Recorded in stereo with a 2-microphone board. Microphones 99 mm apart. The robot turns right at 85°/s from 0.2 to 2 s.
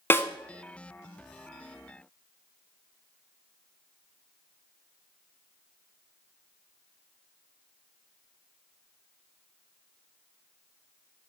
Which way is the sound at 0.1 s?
25° left (ahead or behind).